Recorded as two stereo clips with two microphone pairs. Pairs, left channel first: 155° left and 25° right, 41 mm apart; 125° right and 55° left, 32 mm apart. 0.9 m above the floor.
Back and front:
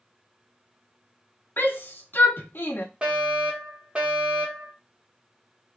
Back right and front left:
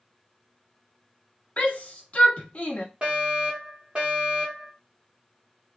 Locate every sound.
1.6 s a shout: 175° right, 1.1 m
3.0 s a fire alarm: 15° left, 1.9 m